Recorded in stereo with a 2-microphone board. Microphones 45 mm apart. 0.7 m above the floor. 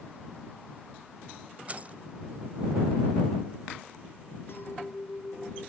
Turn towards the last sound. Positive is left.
turn(degrees=60)  # may be behind; listen again after turning